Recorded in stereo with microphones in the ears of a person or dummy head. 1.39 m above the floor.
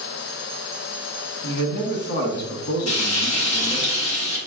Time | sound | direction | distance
1.4 | a man speaking | 65° left (ahead or behind) | 1.5 m
2.9 | frying | 75° left (ahead or behind) | 1.4 m